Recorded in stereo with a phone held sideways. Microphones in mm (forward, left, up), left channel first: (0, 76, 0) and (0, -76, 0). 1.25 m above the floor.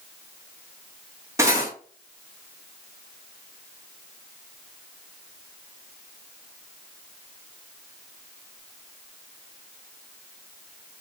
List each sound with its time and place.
1.4 s cutlery clinking: 20° right (ahead or behind), 0.9 m